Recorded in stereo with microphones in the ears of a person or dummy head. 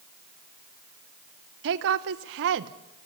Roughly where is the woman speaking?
Right.